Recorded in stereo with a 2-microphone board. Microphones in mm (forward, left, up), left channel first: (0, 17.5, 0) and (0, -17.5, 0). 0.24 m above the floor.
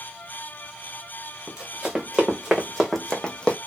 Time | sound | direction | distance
1.5 | running footsteps | 20° right (ahead or behind) | 1.4 m